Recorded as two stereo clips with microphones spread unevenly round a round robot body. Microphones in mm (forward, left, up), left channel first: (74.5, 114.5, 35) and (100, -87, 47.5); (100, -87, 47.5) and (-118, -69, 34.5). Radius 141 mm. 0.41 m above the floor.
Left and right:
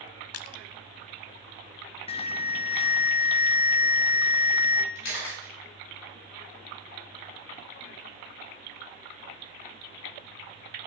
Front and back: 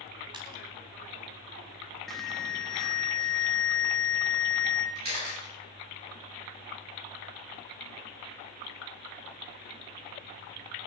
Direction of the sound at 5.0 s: 120° left.